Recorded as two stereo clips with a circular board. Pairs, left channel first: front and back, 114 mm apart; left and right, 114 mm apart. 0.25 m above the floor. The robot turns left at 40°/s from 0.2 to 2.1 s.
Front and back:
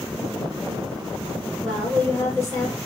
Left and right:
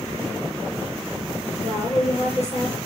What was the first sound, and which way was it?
A woman speaking, 85° left.